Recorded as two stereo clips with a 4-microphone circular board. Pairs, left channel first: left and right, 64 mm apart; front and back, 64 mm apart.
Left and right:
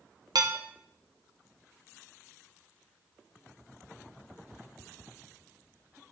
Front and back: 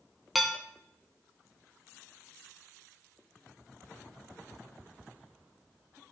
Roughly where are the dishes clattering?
Right.